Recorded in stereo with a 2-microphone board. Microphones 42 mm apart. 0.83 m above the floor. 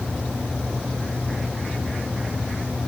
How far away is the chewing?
I don't hear chewing.